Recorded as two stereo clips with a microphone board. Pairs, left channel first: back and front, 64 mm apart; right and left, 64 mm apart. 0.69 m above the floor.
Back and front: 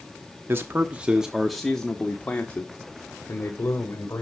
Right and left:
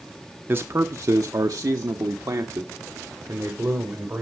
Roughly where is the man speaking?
Ahead left.